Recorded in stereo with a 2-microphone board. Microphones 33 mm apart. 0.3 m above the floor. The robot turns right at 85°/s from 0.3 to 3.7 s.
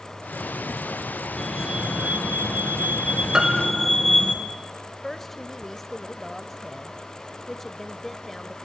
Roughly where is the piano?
Centre.